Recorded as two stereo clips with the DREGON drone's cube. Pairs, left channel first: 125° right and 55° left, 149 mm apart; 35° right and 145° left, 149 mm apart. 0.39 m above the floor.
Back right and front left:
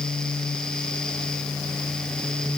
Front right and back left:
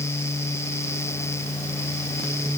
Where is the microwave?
No microwave in this recording.